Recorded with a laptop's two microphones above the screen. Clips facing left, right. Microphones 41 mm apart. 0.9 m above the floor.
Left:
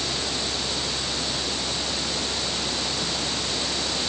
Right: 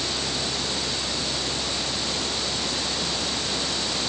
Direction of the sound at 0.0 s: 85° right.